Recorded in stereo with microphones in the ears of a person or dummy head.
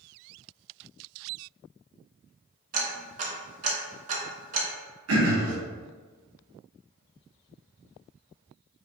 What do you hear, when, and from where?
2.7 s ticking: 40° right (ahead or behind), 0.9 m
5.1 s throat clearing: 75° right (ahead or behind), 0.8 m